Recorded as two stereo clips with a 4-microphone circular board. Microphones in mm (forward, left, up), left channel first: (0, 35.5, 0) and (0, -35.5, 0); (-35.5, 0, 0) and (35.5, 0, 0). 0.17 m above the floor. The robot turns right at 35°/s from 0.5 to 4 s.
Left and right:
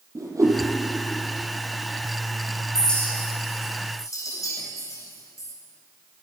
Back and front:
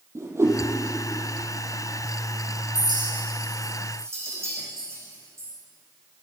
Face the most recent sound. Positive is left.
turn(degrees=50)